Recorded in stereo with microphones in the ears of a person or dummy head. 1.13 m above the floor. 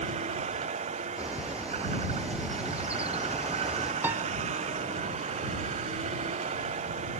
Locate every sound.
0.0 s a vehicle: 40° right (ahead or behind)
1.2 s a bird: 10° right (ahead or behind)
4.0 s a piano: 10° right (ahead or behind)